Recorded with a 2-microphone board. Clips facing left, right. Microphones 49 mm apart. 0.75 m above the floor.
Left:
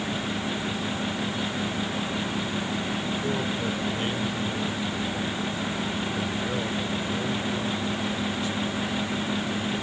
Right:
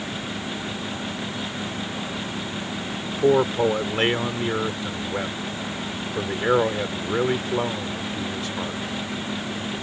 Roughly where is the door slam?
No door slam in this recording.